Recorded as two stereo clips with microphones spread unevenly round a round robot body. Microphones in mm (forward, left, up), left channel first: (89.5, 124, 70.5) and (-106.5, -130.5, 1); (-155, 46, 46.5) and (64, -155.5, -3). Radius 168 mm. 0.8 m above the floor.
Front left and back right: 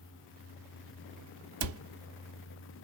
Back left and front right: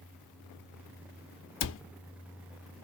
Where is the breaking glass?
I don't hear breaking glass.